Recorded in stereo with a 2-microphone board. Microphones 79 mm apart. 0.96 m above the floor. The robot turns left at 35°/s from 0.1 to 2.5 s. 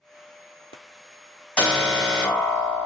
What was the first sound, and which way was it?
An alarm, 150° left.